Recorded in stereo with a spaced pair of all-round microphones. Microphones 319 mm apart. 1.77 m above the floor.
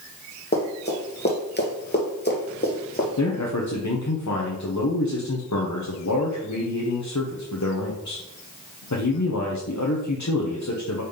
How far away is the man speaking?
About 1.1 m.